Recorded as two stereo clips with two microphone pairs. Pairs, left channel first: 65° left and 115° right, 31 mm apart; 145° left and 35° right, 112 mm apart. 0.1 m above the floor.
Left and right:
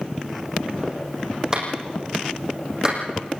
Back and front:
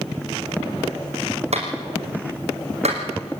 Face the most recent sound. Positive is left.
turn(degrees=-45)